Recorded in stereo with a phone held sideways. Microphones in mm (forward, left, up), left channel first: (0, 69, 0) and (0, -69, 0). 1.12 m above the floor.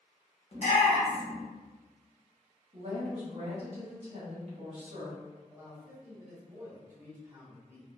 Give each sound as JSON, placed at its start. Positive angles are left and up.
{"t": 0.5, "sound": "a shout", "side_deg": 55, "distance_m": 1.0}
{"t": 2.7, "sound": "a woman speaking", "side_deg": -50, "distance_m": 0.9}
{"t": 5.5, "sound": "a man speaking", "side_deg": -25, "distance_m": 1.1}